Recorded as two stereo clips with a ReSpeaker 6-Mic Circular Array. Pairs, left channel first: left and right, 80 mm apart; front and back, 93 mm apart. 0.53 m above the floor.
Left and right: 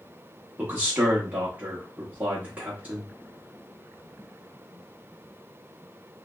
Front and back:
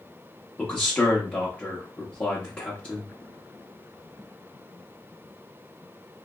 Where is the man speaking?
55° right, 0.8 m.